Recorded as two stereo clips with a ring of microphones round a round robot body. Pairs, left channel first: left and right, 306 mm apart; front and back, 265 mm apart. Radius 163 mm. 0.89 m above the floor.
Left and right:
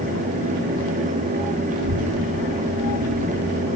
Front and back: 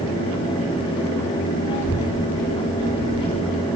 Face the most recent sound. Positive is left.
turn(degrees=-30)